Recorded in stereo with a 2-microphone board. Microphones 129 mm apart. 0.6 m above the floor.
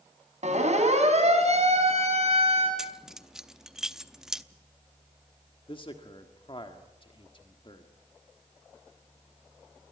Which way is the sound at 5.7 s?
40° left (ahead or behind).